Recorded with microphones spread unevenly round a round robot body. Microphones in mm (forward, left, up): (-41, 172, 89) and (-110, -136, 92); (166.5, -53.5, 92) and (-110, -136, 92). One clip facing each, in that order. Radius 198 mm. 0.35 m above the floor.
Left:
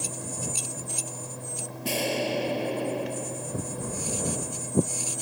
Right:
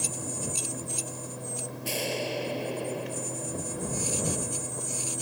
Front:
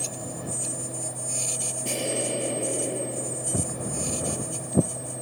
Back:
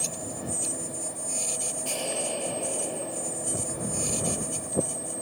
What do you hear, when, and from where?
1.9 s an explosion: 90° left
3.5 s footsteps: straight ahead; by 4.9 s 30° left